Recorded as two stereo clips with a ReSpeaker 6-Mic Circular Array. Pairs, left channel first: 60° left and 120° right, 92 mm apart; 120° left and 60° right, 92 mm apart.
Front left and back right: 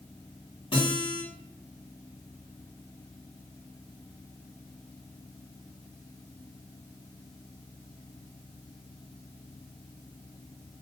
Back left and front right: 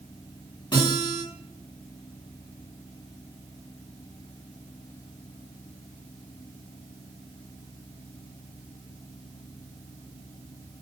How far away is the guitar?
About 2.5 m.